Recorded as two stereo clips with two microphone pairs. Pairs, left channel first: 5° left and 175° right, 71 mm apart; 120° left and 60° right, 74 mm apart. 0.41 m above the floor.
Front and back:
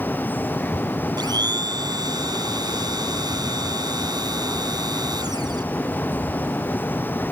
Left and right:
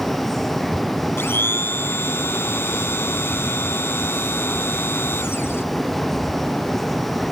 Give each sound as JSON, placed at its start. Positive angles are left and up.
{"t": 1.2, "sound": "a blender", "azimuth_deg": 180}